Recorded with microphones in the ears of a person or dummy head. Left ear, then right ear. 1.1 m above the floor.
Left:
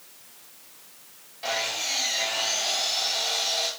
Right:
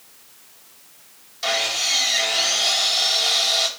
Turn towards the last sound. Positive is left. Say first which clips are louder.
# right 6 dB
turn(degrees=-50)  # may be behind; listen again after turning